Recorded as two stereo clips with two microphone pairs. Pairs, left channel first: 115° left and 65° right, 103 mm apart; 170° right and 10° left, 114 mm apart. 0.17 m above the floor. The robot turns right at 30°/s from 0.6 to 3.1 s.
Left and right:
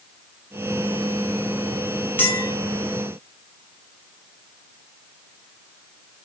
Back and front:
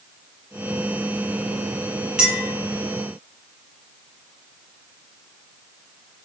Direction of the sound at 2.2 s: 80° left.